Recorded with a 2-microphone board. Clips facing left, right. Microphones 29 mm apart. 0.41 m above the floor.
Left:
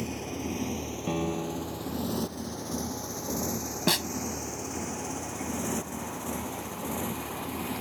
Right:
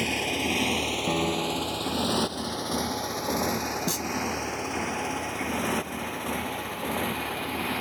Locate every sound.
0.0 s a motorcycle: 70° right (ahead or behind); by 7.8 s 45° right (ahead or behind)
1.1 s a piano: 30° right (ahead or behind)
3.9 s a snare drum: 65° left (ahead or behind)